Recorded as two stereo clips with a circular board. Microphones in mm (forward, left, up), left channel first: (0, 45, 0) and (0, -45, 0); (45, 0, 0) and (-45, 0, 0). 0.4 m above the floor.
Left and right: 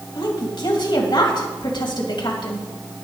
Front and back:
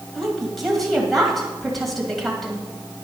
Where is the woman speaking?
90° left, 2.5 m.